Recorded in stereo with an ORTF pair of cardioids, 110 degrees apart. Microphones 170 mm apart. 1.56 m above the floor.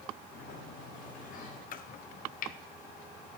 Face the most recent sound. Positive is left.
turn(degrees=55)